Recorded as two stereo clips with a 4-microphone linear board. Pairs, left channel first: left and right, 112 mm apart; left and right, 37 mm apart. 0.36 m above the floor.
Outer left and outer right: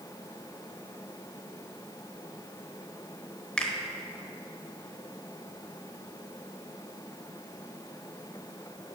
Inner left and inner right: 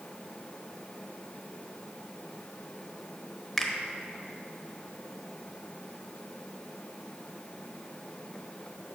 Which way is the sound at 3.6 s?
10° left (ahead or behind).